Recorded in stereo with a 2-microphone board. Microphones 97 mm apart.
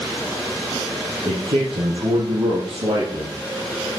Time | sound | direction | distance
1.2 | a man speaking | 75° right (ahead or behind) | 4.5 m